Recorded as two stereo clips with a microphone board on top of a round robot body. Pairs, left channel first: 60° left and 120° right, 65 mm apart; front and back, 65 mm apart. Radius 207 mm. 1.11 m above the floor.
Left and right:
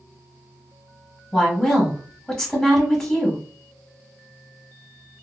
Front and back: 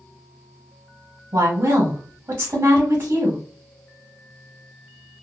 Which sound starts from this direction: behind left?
A woman speaking, at 1.3 s.